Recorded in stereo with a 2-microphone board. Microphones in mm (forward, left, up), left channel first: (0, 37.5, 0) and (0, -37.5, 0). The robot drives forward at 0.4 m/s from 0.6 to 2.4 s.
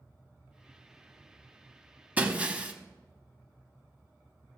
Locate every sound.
2.2 s breaking glass: 20° right (ahead or behind), 1.0 m